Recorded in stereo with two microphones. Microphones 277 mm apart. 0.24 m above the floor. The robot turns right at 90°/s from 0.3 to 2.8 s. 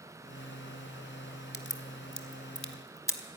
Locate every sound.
1.5 s a crack: 35° left (ahead or behind), 1.1 m; by 3.2 s 10° left (ahead or behind), 1.1 m